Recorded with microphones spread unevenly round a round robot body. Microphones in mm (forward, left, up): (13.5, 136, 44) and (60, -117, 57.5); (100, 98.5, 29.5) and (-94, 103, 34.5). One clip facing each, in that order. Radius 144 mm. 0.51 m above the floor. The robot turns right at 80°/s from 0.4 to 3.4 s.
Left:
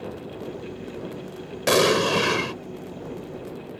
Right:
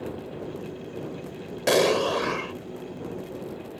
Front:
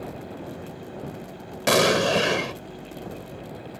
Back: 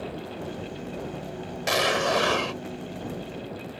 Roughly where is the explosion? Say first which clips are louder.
Left 1 dB, front 5 dB; ahead.